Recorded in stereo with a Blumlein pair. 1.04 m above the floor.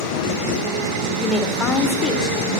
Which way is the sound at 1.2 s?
20° left.